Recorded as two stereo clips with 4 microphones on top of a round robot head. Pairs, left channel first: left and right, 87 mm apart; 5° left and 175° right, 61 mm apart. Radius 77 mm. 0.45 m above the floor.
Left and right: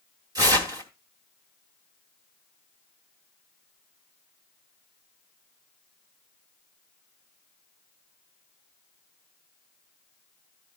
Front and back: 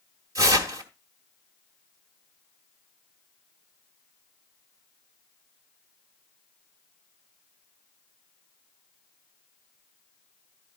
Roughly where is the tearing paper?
Behind right.